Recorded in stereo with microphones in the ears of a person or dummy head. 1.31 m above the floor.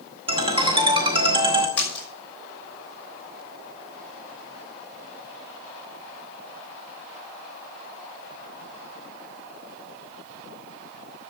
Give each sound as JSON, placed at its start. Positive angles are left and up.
{"t": 0.3, "sound": "a ringtone", "side_deg": -30, "distance_m": 1.7}
{"t": 1.8, "sound": "a splash", "side_deg": 5, "distance_m": 5.0}